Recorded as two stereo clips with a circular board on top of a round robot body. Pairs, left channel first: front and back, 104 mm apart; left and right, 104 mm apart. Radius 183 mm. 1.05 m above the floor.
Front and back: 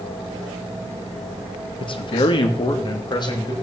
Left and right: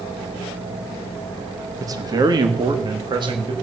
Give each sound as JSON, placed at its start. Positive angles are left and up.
{"t": 1.8, "sound": "a man speaking", "azimuth_deg": -35, "distance_m": 1.6}